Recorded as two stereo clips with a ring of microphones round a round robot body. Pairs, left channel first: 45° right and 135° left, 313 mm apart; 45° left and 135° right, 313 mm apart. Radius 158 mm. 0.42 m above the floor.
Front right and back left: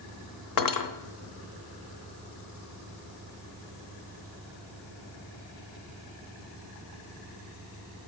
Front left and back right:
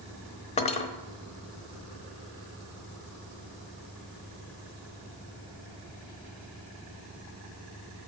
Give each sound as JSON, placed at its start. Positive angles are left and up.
{"t": 0.6, "sound": "cutlery clinking", "azimuth_deg": -25, "distance_m": 1.0}